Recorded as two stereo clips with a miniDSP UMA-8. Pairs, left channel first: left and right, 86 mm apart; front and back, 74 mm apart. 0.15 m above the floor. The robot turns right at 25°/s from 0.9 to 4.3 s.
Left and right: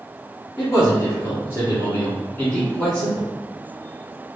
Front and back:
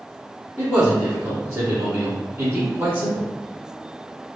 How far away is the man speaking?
About 1.9 m.